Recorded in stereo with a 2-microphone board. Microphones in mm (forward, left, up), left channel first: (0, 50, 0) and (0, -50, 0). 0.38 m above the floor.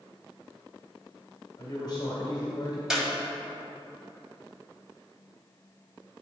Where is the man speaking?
45° left (ahead or behind), 1.5 m.